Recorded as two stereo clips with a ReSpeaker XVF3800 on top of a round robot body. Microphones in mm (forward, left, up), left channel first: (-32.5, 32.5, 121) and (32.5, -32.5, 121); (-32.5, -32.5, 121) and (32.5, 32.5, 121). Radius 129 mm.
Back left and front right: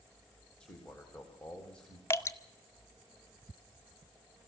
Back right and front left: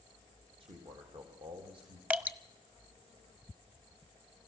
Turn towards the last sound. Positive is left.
turn(degrees=105)